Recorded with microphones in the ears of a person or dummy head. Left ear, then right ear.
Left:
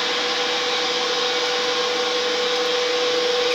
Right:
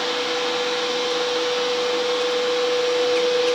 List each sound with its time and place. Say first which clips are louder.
0.0 s a fan: left 1 dB; 5° left (ahead or behind), 0.8 m